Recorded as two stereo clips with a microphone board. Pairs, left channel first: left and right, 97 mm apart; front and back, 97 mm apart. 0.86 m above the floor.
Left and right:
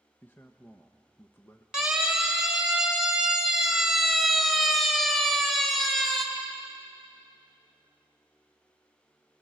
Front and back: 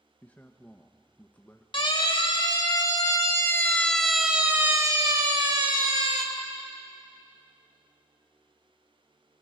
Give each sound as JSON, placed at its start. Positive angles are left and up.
{"t": 0.2, "sound": "a man speaking", "azimuth_deg": 55, "distance_m": 0.9}
{"t": 1.7, "sound": "a siren", "azimuth_deg": -10, "distance_m": 2.5}